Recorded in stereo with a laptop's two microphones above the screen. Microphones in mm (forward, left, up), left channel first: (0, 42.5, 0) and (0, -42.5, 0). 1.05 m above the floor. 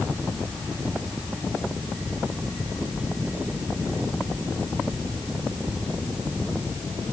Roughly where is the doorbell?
No doorbell in this recording.